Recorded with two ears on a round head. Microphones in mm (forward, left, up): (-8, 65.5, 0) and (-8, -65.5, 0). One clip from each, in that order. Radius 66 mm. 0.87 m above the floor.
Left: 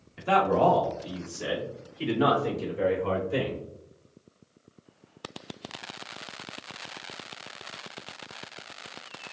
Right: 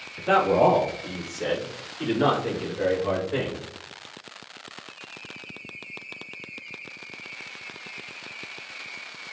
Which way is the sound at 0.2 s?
20° right (ahead or behind).